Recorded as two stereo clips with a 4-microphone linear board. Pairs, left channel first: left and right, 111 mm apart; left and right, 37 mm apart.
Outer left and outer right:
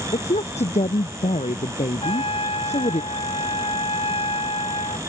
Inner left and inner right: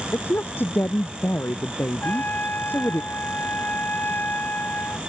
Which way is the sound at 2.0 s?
60° left (ahead or behind).